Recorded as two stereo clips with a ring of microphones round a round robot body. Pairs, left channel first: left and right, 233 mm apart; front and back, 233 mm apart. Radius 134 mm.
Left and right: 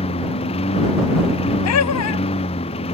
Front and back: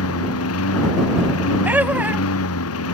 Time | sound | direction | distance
0.0 | a lawn mower | 20° left | ?
1.6 | laughter | 95° left | ?